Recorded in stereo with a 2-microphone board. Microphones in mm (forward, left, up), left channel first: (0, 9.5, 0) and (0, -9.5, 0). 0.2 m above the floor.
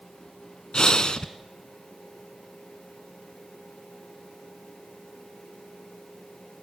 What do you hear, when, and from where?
0.7 s breathing: 50° left (ahead or behind), 1.1 m